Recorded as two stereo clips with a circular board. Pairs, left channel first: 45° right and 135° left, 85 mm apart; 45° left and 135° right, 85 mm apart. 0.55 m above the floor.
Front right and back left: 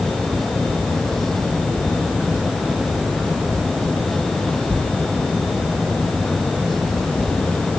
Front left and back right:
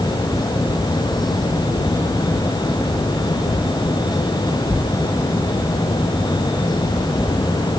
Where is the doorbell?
I don't hear a doorbell.